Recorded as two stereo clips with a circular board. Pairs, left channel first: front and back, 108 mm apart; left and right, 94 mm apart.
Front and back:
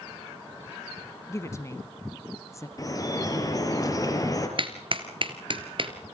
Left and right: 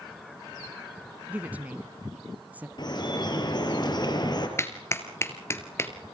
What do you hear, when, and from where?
1.3 s a woman speaking: 35° right, 1.2 m
2.8 s dripping: 55° left, 4 m
4.6 s a clap: 150° left, 2 m